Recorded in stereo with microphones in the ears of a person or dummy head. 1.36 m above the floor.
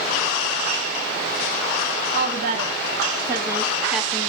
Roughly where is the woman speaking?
Right.